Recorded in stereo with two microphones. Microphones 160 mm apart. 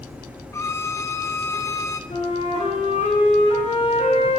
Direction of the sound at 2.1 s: 40° left (ahead or behind).